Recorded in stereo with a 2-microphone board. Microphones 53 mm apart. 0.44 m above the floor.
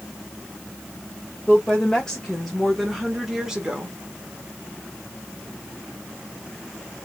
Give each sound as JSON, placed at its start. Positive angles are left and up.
{"t": 1.5, "sound": "a woman speaking", "side_deg": 15, "distance_m": 1.7}